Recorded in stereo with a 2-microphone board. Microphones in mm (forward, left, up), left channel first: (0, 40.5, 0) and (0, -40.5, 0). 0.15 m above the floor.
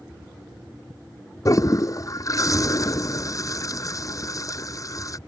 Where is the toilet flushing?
45° left (ahead or behind).